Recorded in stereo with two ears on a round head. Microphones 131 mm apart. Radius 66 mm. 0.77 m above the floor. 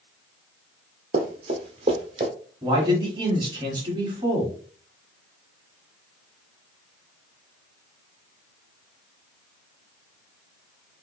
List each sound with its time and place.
1.1 s running footsteps: 45° right (ahead or behind), 1.0 m; by 2.3 s 35° right (ahead or behind), 1.5 m
2.6 s a man speaking: 30° right (ahead or behind), 1.4 m